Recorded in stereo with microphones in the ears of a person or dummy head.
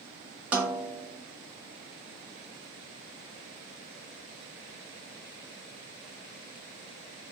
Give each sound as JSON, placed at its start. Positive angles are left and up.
{"t": 0.5, "sound": "a snare drum", "side_deg": -5, "distance_m": 0.6}